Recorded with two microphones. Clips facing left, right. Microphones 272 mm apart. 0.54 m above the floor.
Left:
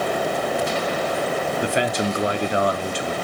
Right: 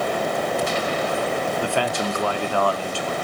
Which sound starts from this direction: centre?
A man speaking, at 1.6 s.